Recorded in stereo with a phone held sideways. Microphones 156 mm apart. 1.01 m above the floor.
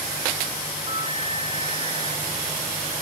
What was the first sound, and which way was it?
A flute, 35° right (ahead or behind).